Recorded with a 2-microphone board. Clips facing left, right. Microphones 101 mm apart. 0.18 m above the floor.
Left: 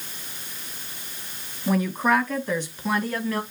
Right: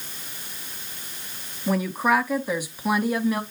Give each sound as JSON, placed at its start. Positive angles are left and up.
{"t": 1.7, "sound": "a woman speaking", "side_deg": 0, "distance_m": 1.2}